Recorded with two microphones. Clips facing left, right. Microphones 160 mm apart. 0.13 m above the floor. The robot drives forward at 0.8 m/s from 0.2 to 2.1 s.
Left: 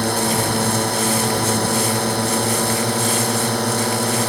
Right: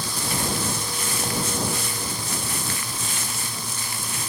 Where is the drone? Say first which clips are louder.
Left 10 dB; 65° left (ahead or behind); by 4.3 s 70° left (ahead or behind).